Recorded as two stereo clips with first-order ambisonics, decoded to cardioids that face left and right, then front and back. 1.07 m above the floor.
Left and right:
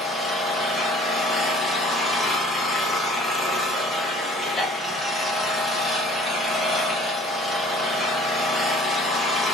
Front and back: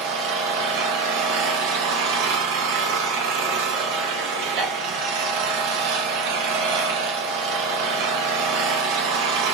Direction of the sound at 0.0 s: 170° left.